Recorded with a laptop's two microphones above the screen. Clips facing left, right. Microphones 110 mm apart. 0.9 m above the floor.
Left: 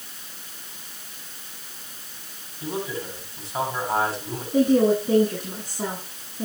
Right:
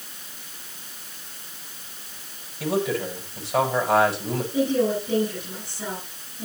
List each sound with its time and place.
2.6 s a man speaking: 75° right (ahead or behind), 7 m
4.5 s a woman speaking: 40° left (ahead or behind), 9.5 m